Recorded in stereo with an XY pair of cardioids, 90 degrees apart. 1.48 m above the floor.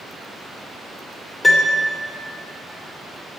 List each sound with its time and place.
1.4 s a piano: 25° left, 3 m